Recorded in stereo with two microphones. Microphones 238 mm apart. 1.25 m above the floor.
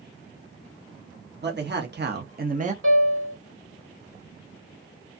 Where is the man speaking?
45° right (ahead or behind), 0.8 m; by 2.7 s 30° right (ahead or behind), 0.5 m.